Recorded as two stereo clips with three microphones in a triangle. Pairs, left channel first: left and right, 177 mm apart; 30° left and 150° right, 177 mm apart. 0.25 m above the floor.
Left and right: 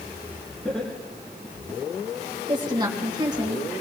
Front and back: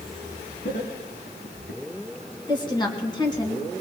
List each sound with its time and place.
0.7 s laughter: straight ahead, 2.5 m; by 1.8 s 25° left, 3.5 m
2.5 s a woman speaking: 30° right, 2.5 m